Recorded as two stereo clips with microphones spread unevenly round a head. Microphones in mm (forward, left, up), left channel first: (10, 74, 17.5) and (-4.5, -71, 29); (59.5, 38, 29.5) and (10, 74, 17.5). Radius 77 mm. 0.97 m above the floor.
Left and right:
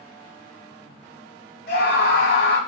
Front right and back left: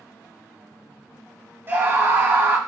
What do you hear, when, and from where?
1.7 s a scream: 95° left, 1.3 m